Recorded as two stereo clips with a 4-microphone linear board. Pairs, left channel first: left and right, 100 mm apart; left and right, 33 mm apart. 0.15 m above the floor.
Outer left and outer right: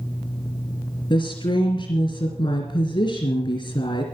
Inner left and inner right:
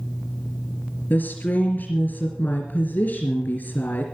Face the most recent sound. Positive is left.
turn(degrees=50)  # may be behind; listen again after turning